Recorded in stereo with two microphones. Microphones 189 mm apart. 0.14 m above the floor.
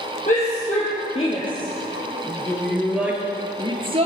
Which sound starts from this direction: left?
A shout, at 0.3 s.